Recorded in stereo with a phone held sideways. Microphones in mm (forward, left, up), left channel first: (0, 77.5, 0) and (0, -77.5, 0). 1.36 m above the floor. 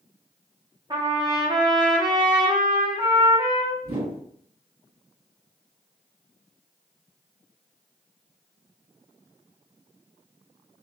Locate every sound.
0.9 s a trumpet: 30° right (ahead or behind), 0.5 m
3.8 s a whoosh: 70° right (ahead or behind), 1.2 m